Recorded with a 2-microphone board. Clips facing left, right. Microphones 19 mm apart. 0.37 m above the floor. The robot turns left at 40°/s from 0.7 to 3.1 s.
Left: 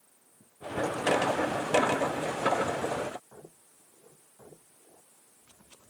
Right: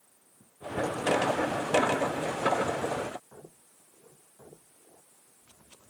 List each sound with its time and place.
Only background noise.